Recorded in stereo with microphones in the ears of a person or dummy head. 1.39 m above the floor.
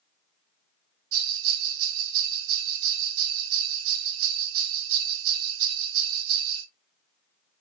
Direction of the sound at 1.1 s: 70° right (ahead or behind).